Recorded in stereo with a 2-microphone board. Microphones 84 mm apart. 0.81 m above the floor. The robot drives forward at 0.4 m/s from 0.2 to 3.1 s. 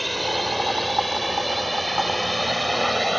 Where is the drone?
Centre (ahead or behind).